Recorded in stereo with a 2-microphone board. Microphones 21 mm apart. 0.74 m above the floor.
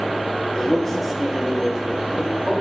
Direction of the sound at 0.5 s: 25° left (ahead or behind).